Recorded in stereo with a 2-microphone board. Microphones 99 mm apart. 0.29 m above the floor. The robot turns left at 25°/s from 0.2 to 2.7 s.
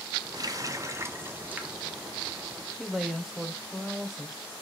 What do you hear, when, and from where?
0.3 s a running tap: 45° right (ahead or behind), 1.2 m; by 2.4 s centre (ahead or behind), 1.2 m
2.8 s a woman speaking: 5° right (ahead or behind), 1.0 m